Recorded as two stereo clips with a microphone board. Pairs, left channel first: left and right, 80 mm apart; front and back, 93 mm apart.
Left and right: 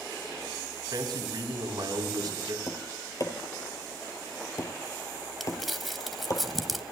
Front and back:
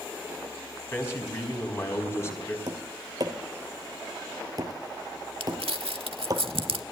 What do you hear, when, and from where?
0.9 s a man speaking: 60° right, 4 m
2.7 s tapping: 135° left, 2 m
5.4 s crumpling: straight behind, 0.8 m